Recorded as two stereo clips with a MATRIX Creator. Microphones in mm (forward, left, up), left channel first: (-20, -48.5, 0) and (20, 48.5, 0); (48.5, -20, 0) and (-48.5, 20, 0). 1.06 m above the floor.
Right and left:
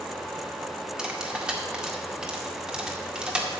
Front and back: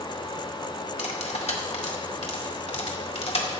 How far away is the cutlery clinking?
About 1.7 m.